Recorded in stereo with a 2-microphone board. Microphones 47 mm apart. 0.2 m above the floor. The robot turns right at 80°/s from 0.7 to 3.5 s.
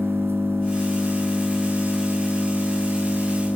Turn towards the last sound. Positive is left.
turn(degrees=140)